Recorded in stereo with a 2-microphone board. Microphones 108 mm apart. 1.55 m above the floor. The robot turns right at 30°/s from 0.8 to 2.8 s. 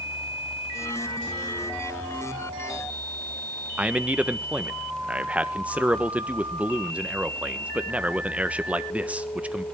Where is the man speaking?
10° right (ahead or behind), 1.2 m.